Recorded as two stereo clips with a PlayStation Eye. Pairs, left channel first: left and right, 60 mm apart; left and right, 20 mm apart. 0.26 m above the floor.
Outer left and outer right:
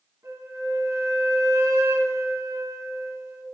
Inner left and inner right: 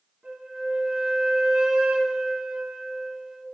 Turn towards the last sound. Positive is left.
turn(degrees=-55)  # may be behind; listen again after turning